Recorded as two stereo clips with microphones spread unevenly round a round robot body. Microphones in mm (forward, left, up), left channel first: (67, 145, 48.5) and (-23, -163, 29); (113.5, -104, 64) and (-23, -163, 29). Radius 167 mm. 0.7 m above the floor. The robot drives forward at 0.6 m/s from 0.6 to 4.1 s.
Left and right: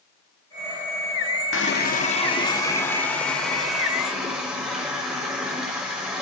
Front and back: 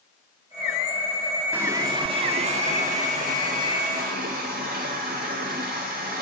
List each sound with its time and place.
1.5 s a running tap: 125° left, 0.6 m; by 6.2 s 165° left, 2.0 m